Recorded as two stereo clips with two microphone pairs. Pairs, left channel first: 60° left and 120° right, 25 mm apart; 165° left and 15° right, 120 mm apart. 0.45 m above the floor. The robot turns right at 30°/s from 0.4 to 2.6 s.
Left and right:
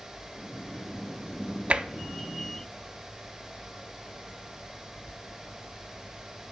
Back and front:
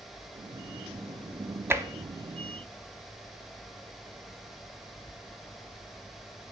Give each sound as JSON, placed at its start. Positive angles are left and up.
{"t": 1.7, "sound": "tapping", "azimuth_deg": -85, "distance_m": 0.5}